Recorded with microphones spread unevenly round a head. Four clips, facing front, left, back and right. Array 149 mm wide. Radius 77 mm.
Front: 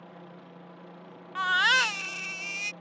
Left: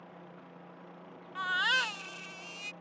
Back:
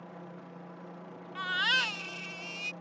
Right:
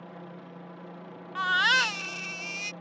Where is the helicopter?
95° right.